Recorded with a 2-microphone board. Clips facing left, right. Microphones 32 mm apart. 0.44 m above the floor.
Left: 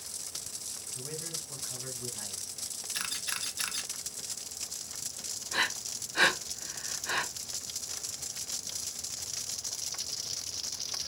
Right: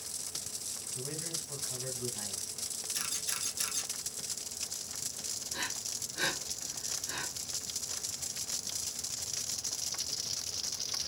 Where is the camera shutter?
30° left (ahead or behind), 0.8 m.